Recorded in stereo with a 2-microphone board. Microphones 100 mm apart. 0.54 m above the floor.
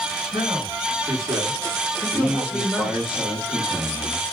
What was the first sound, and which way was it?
A man speaking, 45° right (ahead or behind).